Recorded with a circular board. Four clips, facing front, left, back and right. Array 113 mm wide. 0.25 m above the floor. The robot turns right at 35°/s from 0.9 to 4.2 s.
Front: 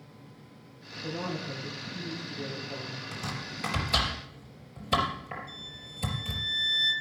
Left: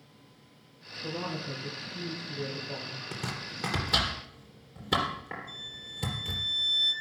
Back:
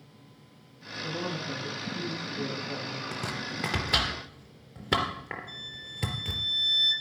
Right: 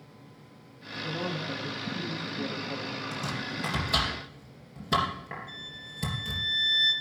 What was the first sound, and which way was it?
A woman speaking, 75° left.